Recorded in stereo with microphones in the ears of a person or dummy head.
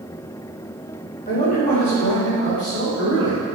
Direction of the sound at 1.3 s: 30° left (ahead or behind).